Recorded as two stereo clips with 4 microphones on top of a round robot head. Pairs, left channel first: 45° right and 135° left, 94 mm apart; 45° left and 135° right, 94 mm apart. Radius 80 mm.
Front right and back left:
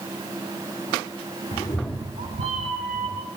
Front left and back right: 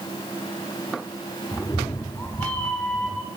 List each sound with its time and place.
1.5 s a cat meowing: 25° right, 0.6 m; by 3.3 s 130° left, 1.4 m